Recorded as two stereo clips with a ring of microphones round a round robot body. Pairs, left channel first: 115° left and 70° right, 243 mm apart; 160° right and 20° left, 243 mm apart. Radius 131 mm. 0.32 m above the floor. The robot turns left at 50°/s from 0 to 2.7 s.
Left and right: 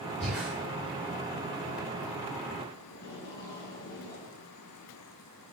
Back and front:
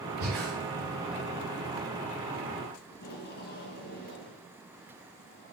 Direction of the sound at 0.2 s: 25° left.